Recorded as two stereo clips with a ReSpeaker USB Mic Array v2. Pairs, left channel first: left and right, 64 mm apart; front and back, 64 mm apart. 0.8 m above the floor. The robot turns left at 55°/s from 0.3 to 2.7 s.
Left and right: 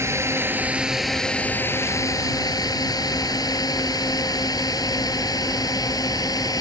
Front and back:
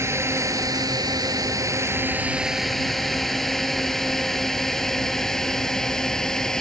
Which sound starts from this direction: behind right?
A drone, at 0.0 s.